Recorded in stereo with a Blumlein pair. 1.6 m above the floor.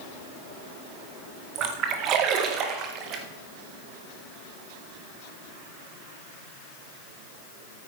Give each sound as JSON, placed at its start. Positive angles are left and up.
{"t": 1.6, "sound": "a splash", "azimuth_deg": -35, "distance_m": 1.8}